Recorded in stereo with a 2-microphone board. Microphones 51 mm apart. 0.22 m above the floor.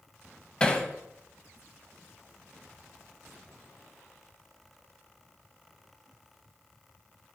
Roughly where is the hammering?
Centre.